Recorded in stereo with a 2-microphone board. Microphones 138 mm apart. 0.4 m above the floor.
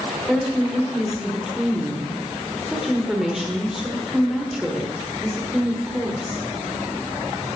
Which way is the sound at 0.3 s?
5° right (ahead or behind).